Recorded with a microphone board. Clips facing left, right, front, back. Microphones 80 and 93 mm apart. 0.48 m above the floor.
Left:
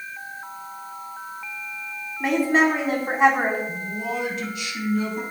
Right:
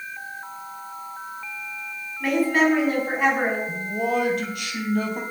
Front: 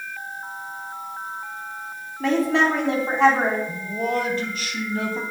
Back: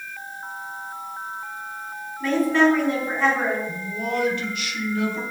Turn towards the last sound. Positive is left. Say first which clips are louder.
# right 4 dB, front 2 dB
turn(degrees=-55)